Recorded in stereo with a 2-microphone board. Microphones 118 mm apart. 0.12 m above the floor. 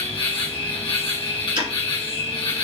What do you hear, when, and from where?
0.0 s an insect: 50° left (ahead or behind), 1.8 m
1.6 s ticking: 50° right (ahead or behind), 2.5 m